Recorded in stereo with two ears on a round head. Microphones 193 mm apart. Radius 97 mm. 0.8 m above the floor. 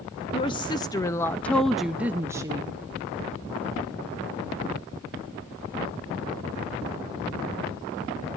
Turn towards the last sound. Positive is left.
turn(degrees=-20)  # may be behind; listen again after turning